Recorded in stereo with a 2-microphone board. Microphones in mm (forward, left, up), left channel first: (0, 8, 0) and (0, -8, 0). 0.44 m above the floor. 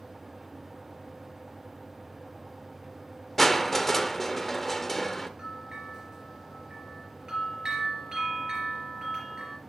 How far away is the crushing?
About 0.6 m.